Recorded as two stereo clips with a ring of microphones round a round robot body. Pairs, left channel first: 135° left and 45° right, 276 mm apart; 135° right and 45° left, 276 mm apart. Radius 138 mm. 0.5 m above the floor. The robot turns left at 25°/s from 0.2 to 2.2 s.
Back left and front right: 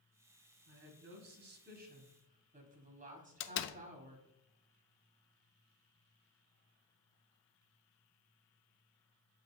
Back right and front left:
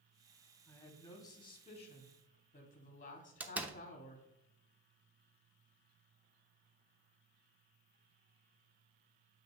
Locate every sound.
0.7 s a woman speaking: 50° right, 1.3 m; by 4.3 s 90° right, 1.3 m
3.4 s a door slam: 125° left, 0.6 m